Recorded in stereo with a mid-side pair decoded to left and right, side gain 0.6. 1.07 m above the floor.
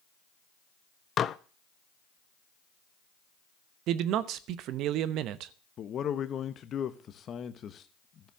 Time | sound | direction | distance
1.2 | dishes clattering | 40° left | 0.6 m
3.9 | a man speaking | 65° right | 0.9 m
5.8 | a man speaking | 45° left | 1.1 m